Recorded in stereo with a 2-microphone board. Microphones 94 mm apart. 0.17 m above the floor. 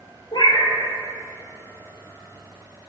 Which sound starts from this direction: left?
A cat meowing, at 0.3 s.